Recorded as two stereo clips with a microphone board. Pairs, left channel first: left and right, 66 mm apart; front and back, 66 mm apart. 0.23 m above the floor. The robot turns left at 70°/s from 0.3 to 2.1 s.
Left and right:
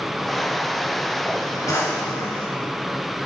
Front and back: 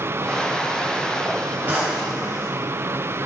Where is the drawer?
120° left, 2 m; by 2.5 s 90° left, 2 m.